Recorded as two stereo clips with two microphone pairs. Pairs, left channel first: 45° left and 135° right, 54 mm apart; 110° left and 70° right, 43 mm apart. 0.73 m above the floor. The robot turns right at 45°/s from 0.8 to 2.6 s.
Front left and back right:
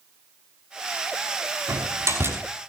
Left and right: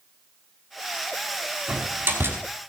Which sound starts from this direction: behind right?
A door slam, at 1.7 s.